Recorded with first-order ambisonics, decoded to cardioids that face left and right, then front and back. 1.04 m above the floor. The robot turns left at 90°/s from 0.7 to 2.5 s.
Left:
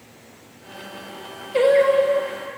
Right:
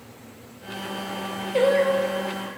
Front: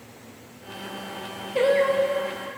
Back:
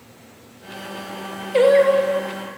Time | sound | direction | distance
1.5 | singing | 175° left | 1.6 m